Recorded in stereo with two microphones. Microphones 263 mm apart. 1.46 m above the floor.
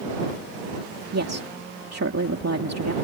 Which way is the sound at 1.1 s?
75° right (ahead or behind).